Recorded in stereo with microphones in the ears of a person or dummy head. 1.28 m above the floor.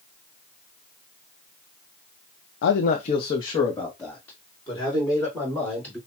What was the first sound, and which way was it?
A man speaking, 85° left.